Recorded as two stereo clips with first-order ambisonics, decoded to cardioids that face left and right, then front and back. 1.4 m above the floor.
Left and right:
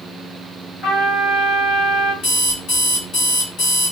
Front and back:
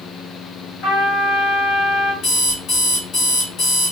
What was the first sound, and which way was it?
A trumpet, 30° left.